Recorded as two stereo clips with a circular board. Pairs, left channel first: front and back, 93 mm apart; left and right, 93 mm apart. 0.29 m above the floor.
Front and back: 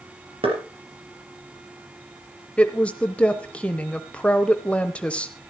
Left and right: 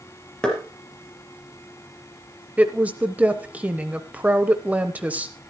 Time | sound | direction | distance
0.4 | knocking | 175° left | 4 m
2.6 | a woman speaking | 50° right | 0.9 m